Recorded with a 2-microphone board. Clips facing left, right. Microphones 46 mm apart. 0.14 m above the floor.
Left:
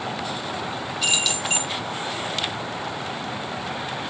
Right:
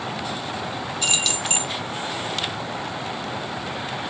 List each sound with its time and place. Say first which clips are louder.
1.0 s keys jangling: left 1 dB; 5° left (ahead or behind), 0.9 m